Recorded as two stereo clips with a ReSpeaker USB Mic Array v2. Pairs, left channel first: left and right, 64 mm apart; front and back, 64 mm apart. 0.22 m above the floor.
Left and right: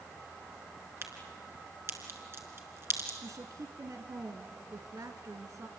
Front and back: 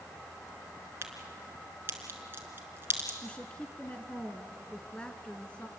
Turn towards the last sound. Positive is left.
turn(degrees=-70)